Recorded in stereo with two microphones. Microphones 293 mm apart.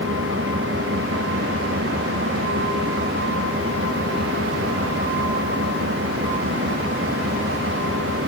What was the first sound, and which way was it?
An engine running, 45° right (ahead or behind).